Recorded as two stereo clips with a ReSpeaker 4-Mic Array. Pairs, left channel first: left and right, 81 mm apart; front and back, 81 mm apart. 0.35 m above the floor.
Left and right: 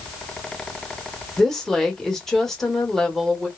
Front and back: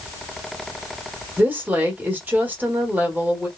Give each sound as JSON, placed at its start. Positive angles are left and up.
{"t": 1.4, "sound": "a woman speaking", "azimuth_deg": 170, "distance_m": 1.3}